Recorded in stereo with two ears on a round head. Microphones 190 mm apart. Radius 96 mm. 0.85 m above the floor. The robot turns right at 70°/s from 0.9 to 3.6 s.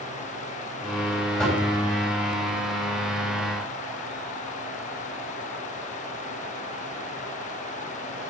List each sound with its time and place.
1.4 s knocking: 5° left (ahead or behind), 3.5 m; by 1.6 s 15° right (ahead or behind), 3.5 m